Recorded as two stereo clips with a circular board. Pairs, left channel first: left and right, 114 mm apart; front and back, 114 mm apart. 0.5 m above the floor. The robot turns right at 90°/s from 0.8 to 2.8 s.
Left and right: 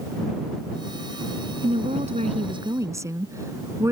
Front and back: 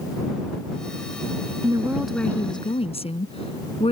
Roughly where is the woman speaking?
Behind right.